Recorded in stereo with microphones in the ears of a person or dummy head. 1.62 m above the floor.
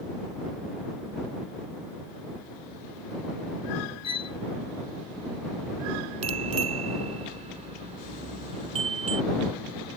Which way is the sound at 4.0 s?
25° left (ahead or behind).